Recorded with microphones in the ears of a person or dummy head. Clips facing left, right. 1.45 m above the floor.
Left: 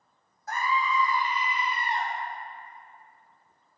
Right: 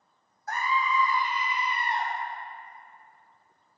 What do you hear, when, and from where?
0.5 s a scream: 75° left (ahead or behind), 0.9 m; by 2.1 s 55° left (ahead or behind), 1.7 m